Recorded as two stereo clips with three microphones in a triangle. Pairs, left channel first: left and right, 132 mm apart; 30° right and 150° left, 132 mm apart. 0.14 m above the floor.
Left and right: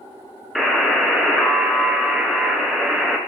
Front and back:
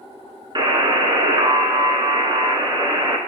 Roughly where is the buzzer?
Behind.